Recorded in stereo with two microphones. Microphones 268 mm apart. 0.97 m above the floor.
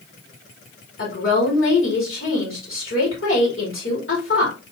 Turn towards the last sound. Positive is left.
turn(degrees=50)  # may be behind; listen again after turning